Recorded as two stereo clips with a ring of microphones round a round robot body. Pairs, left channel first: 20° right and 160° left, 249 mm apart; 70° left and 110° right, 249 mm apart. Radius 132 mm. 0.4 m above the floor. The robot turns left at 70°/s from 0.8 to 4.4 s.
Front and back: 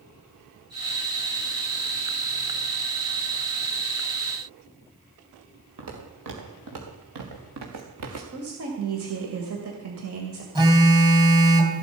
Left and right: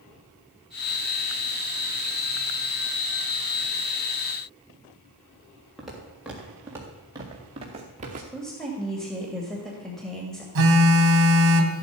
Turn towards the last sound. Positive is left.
turn(degrees=-130)